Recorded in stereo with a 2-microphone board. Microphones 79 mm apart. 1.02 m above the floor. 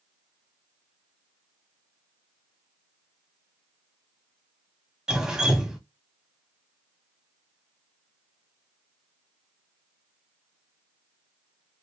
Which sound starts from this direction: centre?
Dripping, at 5.1 s.